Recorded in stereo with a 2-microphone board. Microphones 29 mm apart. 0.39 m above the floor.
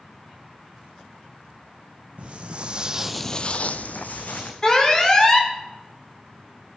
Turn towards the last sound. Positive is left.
turn(degrees=20)  # may be behind; listen again after turning